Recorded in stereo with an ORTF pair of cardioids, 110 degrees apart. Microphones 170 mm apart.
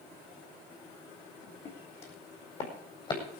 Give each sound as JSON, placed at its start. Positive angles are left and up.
{"t": 1.6, "sound": "footsteps", "azimuth_deg": 45, "distance_m": 4.5}